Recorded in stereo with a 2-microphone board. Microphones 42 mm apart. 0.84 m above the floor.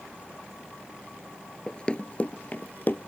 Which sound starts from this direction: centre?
Running footsteps, at 1.7 s.